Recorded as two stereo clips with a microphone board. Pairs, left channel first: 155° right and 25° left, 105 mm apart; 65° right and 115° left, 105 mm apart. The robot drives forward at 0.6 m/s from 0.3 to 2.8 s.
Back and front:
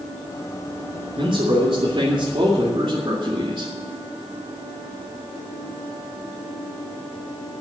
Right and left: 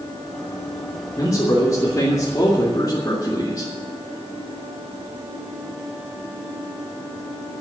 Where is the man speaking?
10° right, 3 m.